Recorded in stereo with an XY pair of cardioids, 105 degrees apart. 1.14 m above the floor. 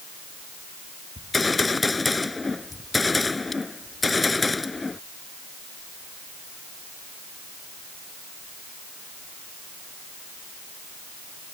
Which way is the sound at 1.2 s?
20° left.